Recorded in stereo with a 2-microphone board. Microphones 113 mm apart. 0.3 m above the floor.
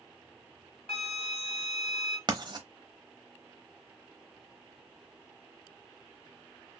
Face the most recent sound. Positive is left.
turn(degrees=-40)  # may be behind; listen again after turning